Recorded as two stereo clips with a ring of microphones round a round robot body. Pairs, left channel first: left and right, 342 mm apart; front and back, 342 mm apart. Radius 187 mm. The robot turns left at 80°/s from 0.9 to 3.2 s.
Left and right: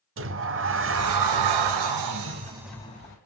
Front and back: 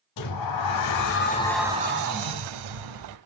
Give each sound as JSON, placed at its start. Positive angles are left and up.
{"t": 0.2, "sound": "a sliding door", "azimuth_deg": -35, "distance_m": 0.7}